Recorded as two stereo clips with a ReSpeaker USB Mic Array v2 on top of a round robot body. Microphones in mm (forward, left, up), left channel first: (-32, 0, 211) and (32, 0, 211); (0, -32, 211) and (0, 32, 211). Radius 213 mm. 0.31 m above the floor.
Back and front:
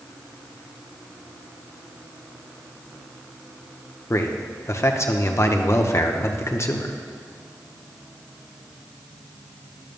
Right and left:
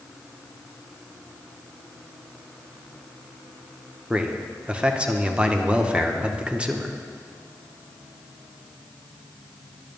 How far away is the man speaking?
About 1.1 m.